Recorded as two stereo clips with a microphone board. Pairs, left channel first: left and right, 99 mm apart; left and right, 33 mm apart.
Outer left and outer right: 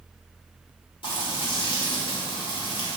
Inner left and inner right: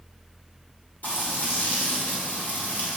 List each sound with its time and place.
1.0 s frying: 60° left (ahead or behind), 1.6 m